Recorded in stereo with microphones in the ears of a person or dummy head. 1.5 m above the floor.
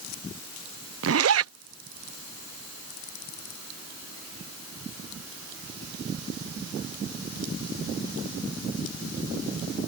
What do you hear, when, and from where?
1.0 s a zipper: 75° right (ahead or behind)